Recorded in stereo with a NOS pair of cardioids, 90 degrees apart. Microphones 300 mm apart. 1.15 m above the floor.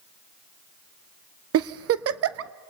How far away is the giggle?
About 0.8 m.